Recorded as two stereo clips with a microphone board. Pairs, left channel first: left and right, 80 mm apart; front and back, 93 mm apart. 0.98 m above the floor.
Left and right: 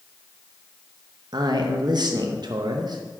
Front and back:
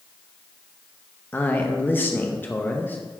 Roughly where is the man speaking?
Ahead right.